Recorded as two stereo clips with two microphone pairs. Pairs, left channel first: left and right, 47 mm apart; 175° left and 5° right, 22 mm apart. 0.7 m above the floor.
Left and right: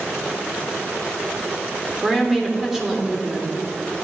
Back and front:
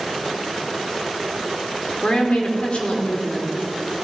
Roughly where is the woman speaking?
Behind.